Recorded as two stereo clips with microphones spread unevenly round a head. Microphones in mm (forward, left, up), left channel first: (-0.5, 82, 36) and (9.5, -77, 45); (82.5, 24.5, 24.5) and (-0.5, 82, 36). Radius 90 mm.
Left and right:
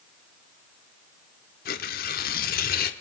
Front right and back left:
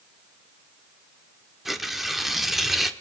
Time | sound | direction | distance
1.6 | tearing paper | 60° left | 1.4 m